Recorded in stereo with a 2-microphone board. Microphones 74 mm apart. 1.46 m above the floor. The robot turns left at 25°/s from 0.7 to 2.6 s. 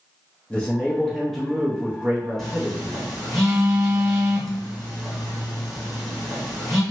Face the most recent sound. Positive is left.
turn(degrees=0)  # may be behind; listen again after turning